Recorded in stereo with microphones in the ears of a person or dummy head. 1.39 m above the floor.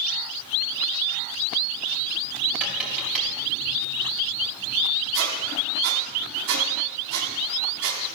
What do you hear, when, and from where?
2.6 s tapping: 10° right (ahead or behind), 3 m
5.1 s a squeak: 65° right (ahead or behind), 2.5 m